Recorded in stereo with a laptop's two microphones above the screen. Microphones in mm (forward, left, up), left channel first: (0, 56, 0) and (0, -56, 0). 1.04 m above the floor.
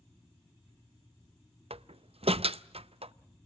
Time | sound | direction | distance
1.7 | a door slam | 60° right (ahead or behind) | 0.5 m